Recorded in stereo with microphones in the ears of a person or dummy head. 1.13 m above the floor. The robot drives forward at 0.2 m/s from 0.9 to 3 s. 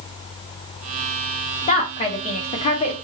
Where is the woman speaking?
40° left (ahead or behind), 1.5 m; by 2.9 s 35° left (ahead or behind), 1.7 m.